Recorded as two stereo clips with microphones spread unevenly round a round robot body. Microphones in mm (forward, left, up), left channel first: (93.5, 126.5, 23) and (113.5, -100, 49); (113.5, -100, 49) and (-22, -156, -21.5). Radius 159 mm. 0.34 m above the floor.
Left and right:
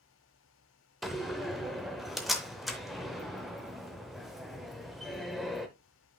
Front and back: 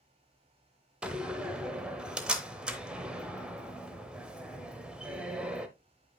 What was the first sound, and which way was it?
A door slam, 175° left.